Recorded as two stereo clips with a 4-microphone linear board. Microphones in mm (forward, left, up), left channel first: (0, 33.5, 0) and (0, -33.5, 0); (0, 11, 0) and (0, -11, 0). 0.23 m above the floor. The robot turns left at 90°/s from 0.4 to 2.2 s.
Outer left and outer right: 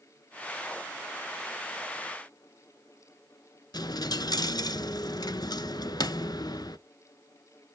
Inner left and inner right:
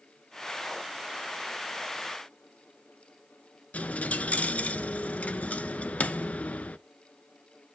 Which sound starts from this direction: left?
A dropped coin, at 3.7 s.